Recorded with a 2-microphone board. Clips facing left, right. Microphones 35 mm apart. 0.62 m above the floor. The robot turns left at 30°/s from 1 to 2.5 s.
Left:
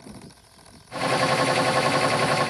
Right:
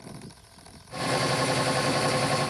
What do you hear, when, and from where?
Only background noise.